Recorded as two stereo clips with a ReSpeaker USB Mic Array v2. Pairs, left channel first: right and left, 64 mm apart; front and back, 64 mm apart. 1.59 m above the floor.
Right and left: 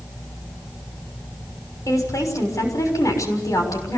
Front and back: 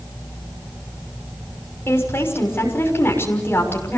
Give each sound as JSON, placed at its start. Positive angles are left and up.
{"t": 1.9, "sound": "a woman speaking", "azimuth_deg": -55, "distance_m": 6.0}